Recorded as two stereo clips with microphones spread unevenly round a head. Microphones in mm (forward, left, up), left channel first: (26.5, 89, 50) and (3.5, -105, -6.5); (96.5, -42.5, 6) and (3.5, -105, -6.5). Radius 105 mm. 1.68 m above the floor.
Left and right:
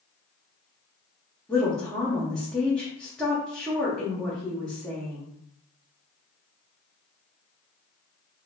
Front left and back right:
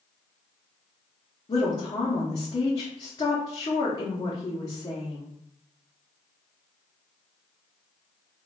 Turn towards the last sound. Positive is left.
turn(degrees=20)